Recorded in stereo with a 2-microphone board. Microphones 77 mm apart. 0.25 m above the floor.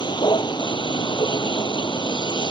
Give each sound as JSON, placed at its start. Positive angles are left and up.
{"t": 0.0, "sound": "a vehicle", "side_deg": 75}